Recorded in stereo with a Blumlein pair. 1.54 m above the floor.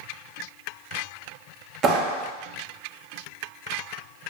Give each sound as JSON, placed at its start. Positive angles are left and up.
{"t": 1.8, "sound": "a clap", "azimuth_deg": -25, "distance_m": 0.6}